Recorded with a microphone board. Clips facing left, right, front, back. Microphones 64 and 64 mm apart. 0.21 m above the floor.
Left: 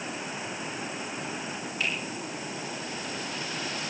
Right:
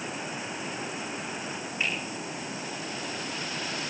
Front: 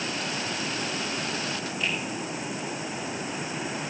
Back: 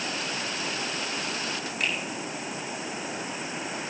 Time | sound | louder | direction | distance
1.8 | a finger snap | even, back 1 dB | 155° right | 9.5 m